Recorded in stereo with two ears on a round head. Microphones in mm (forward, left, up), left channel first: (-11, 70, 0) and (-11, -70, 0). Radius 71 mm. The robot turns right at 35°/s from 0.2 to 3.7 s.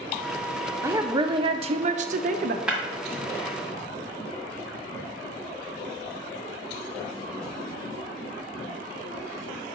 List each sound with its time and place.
0.8 s a woman speaking: 160° right, 0.6 m; by 2.6 s 95° right, 0.6 m
2.7 s breaking glass: 5° right (ahead or behind), 1.5 m; by 2.8 s 10° right (ahead or behind), 1.5 m